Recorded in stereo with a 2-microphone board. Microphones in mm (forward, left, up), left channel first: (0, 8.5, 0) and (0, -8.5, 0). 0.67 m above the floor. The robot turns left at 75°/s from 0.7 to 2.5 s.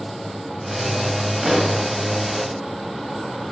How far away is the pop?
About 1.0 m.